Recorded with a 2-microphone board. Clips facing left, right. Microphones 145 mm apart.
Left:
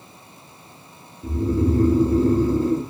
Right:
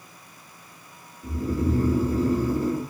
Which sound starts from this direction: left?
Snoring, at 1.2 s.